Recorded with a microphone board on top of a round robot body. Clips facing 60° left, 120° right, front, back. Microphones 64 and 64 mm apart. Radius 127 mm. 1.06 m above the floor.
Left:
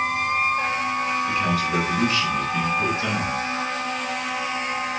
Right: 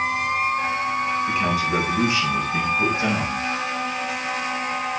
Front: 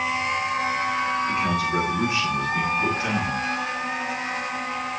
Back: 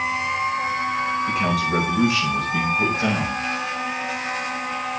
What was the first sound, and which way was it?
A man speaking, 170° left.